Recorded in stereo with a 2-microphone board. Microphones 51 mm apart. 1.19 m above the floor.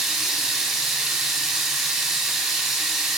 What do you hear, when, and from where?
0.0 s running water: 5° right (ahead or behind), 0.8 m